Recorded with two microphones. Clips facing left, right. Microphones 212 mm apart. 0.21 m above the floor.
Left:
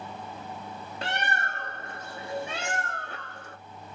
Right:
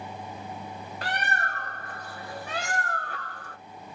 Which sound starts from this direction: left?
A bird, at 1.0 s.